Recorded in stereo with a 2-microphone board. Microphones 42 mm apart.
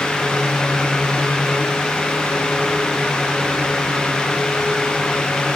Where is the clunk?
I don't hear a clunk.